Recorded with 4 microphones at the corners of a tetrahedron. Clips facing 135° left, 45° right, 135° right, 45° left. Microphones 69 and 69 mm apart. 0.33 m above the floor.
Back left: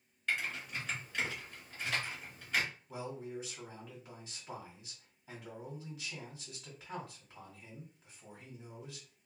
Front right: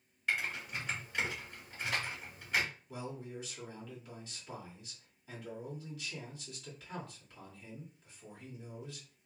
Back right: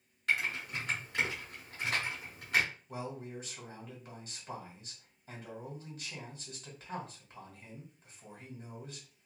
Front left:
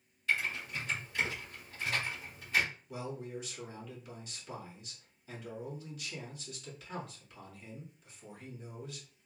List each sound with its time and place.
0.3 s typing on a keyboard: 125° right, 1.6 m
2.9 s a man speaking: 160° right, 1.8 m